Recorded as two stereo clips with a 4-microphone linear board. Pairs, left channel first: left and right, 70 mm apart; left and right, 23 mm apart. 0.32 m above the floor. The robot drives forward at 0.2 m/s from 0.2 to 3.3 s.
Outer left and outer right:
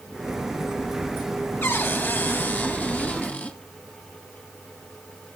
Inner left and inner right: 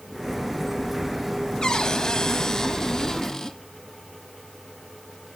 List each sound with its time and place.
1.6 s a cupboard door: 30° left (ahead or behind), 0.7 m; by 3.6 s 20° left (ahead or behind), 1.0 m